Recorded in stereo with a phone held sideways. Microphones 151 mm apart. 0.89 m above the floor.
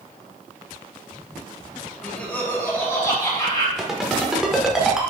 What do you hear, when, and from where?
2.0 s laughter: 5° left (ahead or behind), 3 m; by 3.7 s 30° left (ahead or behind), 3 m
3.8 s a ringtone: centre (ahead or behind), 1.4 m